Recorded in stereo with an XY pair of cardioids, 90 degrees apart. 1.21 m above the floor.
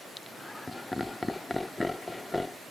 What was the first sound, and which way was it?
Laughter, 15° left.